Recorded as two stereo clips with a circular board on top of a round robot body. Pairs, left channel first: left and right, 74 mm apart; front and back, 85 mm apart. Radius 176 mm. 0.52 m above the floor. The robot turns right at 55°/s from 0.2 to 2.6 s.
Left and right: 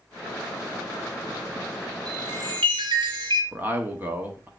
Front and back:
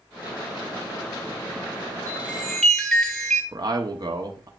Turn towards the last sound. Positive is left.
turn(degrees=-150)